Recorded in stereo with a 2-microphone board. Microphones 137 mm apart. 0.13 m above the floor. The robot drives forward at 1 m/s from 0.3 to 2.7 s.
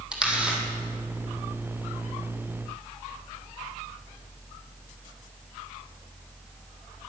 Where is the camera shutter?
5° right (ahead or behind), 3 m; by 0.6 s 10° right (ahead or behind), 2.5 m.